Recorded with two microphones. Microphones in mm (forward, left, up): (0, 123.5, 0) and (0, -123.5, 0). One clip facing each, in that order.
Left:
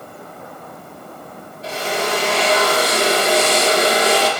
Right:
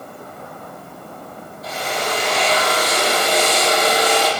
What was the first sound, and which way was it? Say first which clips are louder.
A drill: left 3 dB; 30° left (ahead or behind).